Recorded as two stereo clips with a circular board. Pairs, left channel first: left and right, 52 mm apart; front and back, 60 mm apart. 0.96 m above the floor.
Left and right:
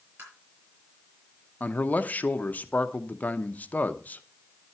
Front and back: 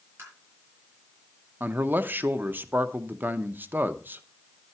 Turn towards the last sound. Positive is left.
turn(degrees=135)